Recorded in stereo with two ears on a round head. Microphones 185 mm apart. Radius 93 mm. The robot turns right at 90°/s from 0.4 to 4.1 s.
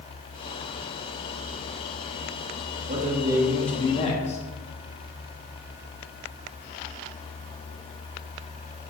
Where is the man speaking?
65° right, 1.4 m; by 4.4 s 45° left, 1.4 m.